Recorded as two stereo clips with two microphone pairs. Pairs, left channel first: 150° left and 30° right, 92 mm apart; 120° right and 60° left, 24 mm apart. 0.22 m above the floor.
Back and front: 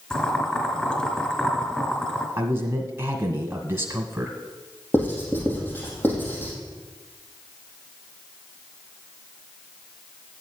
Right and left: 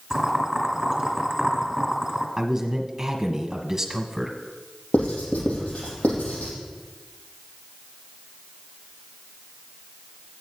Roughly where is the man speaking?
Ahead.